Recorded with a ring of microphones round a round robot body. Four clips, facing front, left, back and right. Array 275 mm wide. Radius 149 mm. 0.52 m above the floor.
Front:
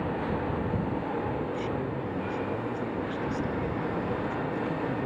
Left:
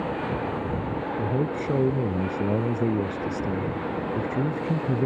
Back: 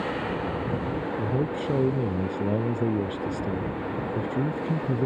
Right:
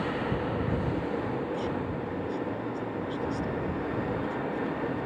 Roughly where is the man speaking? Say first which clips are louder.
Left 4 dB, back 3 dB; behind left.